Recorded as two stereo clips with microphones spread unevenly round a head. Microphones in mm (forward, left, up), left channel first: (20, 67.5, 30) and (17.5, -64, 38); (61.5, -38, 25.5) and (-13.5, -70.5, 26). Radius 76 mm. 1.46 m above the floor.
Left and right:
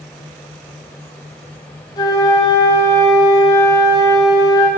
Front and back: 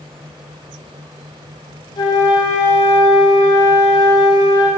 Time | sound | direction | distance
2.0 | a flute | 35° left | 0.8 m